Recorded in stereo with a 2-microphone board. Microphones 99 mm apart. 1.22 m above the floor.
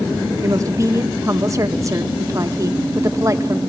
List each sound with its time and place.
0.4 s a woman speaking: 35° right (ahead or behind), 1.2 m